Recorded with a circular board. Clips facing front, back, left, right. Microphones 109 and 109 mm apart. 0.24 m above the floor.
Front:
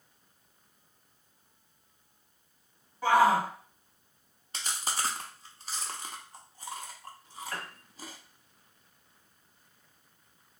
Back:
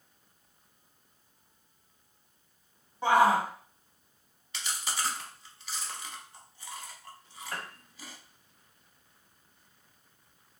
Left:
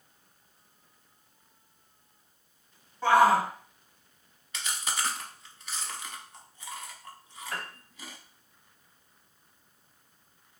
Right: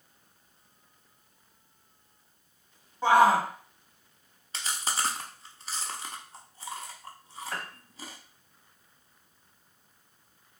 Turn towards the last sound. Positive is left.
turn(degrees=-165)